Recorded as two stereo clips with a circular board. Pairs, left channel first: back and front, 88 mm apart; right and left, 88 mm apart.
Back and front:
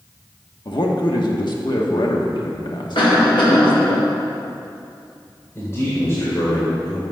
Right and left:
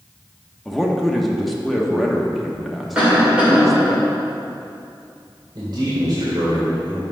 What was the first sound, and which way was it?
A man speaking, straight behind.